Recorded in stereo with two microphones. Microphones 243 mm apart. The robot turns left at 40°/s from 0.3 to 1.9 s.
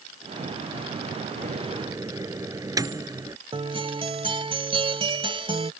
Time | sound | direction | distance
1.4 | a microwave | 35° right (ahead or behind) | ?
3.5 | a guitar | 20° right (ahead or behind) | ?